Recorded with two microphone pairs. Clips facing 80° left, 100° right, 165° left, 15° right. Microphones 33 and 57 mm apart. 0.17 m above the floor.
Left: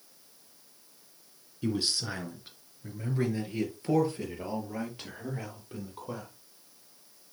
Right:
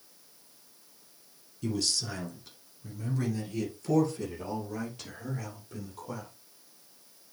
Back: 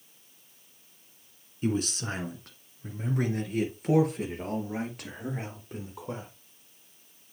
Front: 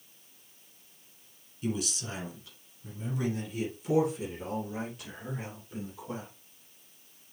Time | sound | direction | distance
1.6 | a man speaking | 135° left | 1.8 m